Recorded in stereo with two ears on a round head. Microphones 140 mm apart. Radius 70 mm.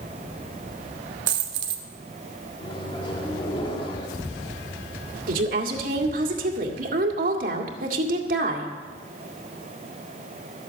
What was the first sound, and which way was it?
A dropped coin, 75° right (ahead or behind).